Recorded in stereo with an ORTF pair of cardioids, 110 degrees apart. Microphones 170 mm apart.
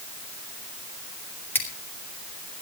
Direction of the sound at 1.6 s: 10° left.